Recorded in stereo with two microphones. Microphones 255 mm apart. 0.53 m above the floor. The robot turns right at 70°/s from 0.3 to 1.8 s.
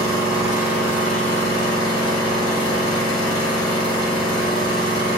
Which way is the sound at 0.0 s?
15° left.